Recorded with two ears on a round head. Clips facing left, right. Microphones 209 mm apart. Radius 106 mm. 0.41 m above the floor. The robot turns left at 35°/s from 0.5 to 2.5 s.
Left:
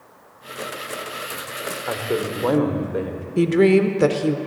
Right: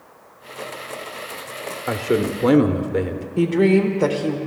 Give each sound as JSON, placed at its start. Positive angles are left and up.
{"t": 1.9, "sound": "a man speaking", "side_deg": -30, "distance_m": 0.9}
{"t": 3.4, "sound": "a woman speaking", "side_deg": 25, "distance_m": 0.9}